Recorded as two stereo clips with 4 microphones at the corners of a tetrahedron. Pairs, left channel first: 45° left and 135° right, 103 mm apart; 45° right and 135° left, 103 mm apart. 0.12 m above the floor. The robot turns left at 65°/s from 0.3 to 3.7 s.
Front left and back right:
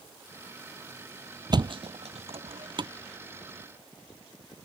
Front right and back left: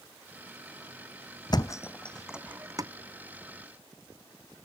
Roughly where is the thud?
Right.